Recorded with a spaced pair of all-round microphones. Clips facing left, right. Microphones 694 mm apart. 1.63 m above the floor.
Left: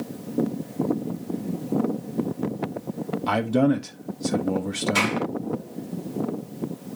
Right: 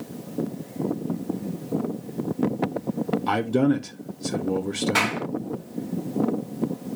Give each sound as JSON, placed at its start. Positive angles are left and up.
{"t": 3.3, "sound": "a man speaking", "side_deg": 15, "distance_m": 0.7}
{"t": 5.0, "sound": "a clap", "side_deg": -75, "distance_m": 2.0}